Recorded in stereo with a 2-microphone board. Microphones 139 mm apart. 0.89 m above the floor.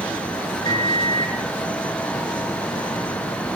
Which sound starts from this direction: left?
A microwave, at 0.6 s.